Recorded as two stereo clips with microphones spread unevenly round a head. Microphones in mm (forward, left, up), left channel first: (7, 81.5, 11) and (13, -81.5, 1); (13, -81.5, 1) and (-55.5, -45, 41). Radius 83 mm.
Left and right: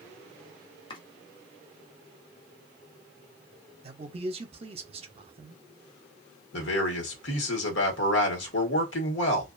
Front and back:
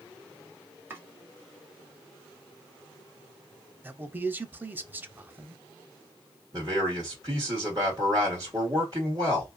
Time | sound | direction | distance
0.9 | chopping | 140° left | 0.6 m
3.8 | a man speaking | 120° right | 0.7 m
6.5 | a man speaking | 85° left | 1.3 m